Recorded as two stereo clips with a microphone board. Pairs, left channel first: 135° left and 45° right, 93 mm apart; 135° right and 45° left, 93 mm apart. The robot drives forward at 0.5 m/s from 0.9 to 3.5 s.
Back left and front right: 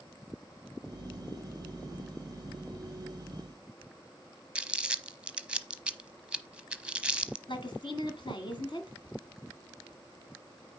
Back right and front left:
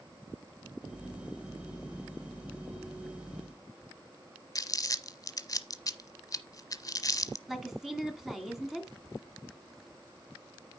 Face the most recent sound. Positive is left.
turn(degrees=130)